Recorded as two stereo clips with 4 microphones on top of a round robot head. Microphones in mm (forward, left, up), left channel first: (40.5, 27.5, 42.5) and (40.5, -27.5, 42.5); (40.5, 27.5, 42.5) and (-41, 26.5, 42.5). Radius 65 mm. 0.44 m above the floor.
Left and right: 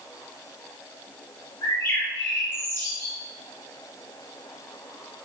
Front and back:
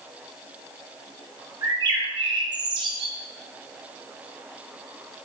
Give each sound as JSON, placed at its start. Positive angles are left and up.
{"t": 1.6, "sound": "a bird", "azimuth_deg": 150, "distance_m": 2.5}